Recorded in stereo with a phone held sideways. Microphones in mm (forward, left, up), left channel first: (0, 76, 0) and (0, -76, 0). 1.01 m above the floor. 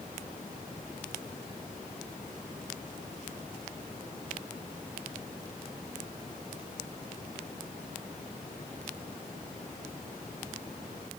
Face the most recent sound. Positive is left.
No sound to turn to.